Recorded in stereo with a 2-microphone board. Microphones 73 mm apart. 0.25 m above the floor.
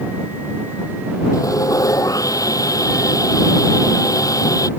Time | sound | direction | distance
1.3 | sawing | 50° left (ahead or behind) | ?